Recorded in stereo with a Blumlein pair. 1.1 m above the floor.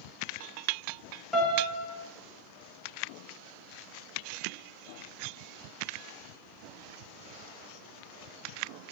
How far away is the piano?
About 0.9 m.